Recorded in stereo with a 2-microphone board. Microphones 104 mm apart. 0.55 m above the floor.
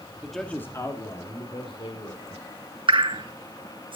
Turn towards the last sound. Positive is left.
turn(degrees=-55)  # may be behind; listen again after turning